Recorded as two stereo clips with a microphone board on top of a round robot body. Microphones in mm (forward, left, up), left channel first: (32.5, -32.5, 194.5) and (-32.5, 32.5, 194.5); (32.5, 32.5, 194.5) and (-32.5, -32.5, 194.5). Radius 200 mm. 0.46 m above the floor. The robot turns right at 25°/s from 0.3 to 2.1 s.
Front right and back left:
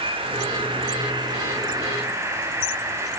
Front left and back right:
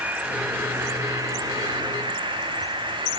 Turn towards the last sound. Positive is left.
turn(degrees=-165)